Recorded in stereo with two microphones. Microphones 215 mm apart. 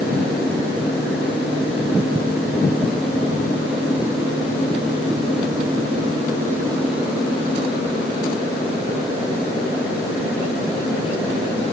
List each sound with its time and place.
Only background noise.